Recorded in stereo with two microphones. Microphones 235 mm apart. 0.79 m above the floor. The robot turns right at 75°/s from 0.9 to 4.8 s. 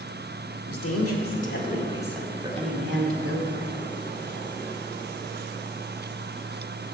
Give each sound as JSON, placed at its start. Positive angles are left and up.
{"t": 0.7, "sound": "a woman speaking", "azimuth_deg": 80, "distance_m": 1.8}